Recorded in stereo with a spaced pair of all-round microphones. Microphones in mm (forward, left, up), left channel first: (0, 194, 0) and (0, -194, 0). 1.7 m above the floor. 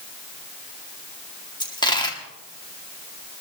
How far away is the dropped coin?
About 1.6 m.